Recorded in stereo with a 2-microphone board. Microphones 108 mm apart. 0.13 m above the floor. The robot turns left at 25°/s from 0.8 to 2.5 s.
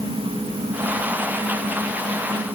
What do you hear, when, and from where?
Only background noise.